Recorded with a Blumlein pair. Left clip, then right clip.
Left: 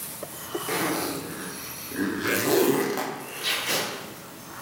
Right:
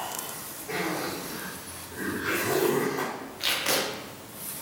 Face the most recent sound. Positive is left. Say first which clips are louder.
# even
turn(degrees=-50)